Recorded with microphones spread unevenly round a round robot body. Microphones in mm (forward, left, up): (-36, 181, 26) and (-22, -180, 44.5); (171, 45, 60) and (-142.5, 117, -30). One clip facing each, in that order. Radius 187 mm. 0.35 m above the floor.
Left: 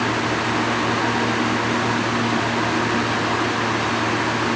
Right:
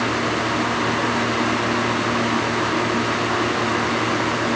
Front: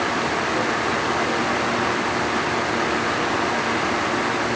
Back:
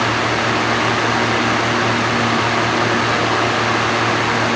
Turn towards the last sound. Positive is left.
No sound to turn to.